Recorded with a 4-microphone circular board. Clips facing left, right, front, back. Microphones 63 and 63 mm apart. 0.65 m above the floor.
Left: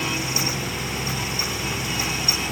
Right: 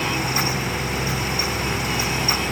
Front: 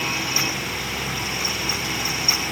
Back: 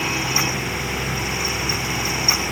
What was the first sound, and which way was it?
Only background noise.